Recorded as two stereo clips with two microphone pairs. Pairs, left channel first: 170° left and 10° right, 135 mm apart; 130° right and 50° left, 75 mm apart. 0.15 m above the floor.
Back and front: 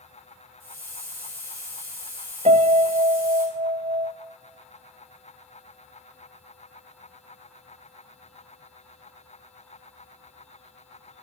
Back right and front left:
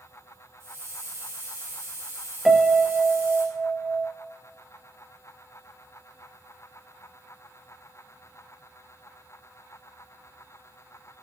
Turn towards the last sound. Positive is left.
turn(degrees=-35)